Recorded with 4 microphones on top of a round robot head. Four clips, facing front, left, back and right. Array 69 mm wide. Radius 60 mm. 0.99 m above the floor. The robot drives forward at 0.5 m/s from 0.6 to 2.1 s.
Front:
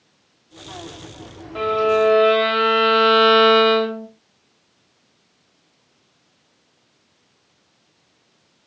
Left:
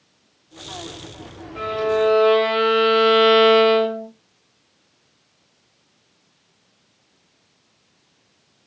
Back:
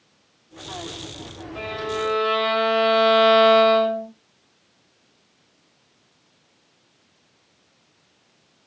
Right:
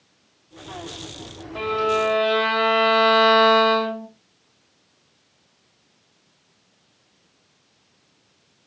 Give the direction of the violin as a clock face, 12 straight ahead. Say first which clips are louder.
Left 1 dB, front 10 dB; 1 o'clock.